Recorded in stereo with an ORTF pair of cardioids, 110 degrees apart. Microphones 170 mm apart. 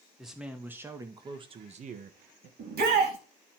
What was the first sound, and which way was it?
A man speaking, straight ahead.